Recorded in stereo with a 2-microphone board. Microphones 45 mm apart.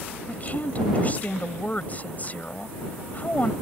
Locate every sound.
0.3 s a woman speaking: 35° left (ahead or behind)